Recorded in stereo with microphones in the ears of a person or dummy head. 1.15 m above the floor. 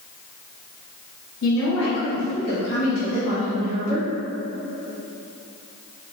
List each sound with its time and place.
1.4 s a woman speaking: 65° left (ahead or behind), 1.3 m; by 4.1 s 35° left (ahead or behind), 2.5 m